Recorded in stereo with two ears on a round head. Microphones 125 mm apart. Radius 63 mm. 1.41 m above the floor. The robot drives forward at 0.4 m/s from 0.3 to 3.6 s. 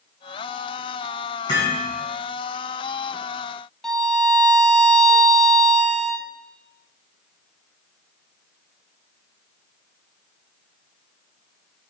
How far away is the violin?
About 1.6 m.